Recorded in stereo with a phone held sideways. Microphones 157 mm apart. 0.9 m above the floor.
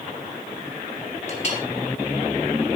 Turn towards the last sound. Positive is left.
turn(degrees=45)  # may be behind; listen again after turning